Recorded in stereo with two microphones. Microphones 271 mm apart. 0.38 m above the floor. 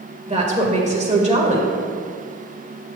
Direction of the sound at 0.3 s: 25° right (ahead or behind).